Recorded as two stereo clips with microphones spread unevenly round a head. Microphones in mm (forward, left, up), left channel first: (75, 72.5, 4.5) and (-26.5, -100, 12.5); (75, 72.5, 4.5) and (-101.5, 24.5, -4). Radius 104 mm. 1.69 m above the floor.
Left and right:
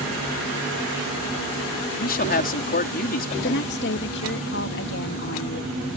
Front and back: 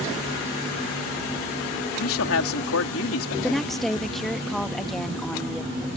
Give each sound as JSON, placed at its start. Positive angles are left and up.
{"t": 2.0, "sound": "a man speaking", "azimuth_deg": 10}
{"t": 3.4, "sound": "a woman speaking", "azimuth_deg": 105}